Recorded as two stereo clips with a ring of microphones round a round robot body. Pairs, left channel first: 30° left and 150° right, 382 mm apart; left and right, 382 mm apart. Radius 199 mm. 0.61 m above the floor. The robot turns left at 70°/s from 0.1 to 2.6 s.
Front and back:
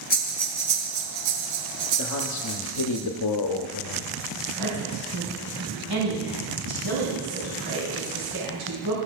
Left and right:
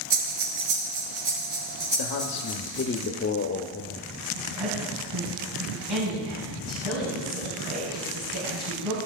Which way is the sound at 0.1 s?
35° right.